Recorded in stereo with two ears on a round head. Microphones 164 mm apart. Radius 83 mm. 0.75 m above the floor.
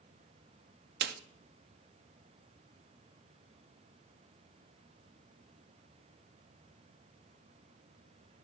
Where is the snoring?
I don't hear snoring.